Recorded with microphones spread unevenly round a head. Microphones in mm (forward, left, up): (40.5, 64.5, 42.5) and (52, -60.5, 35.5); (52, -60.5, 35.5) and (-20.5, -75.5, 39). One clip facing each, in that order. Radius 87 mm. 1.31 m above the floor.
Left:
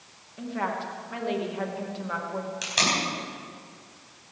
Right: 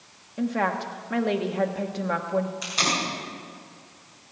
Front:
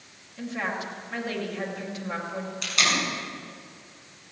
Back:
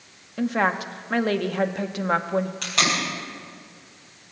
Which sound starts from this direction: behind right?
A woman speaking, at 0.4 s.